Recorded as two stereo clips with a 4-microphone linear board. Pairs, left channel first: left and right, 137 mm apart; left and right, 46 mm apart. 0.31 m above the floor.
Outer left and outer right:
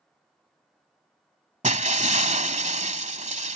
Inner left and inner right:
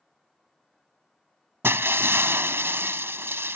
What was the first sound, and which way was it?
Breaking glass, 60° right (ahead or behind).